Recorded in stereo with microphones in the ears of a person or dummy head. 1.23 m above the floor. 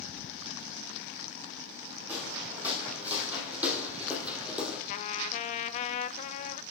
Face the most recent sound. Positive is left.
turn(degrees=40)  # may be behind; listen again after turning